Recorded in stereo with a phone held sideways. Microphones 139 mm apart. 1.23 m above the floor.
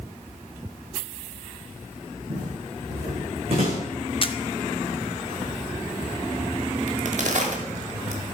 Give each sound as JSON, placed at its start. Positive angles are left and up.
{"t": 2.3, "sound": "footsteps", "side_deg": -65, "distance_m": 4.0}
{"t": 4.2, "sound": "a camera shutter", "side_deg": 40, "distance_m": 0.6}
{"t": 6.9, "sound": "a crack", "side_deg": -60, "distance_m": 1.5}